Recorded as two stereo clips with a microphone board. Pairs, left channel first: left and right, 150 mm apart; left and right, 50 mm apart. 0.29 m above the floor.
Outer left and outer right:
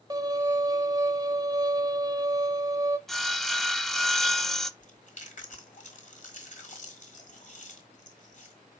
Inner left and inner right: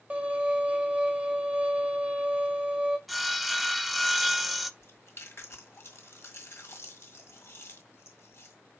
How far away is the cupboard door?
No cupboard door in this recording.